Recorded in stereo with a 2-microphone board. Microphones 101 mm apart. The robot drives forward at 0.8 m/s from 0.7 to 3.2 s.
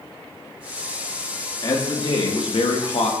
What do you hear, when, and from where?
1.6 s a man speaking: 40° left (ahead or behind), 1.5 m; by 3.1 s 65° left (ahead or behind), 1.1 m